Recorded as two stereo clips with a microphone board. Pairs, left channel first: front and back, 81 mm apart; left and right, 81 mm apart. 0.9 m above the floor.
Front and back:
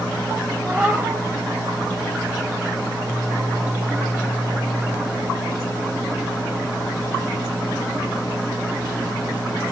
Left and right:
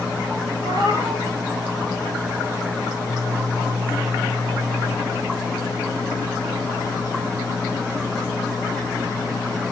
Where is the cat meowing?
105° right, 3 m.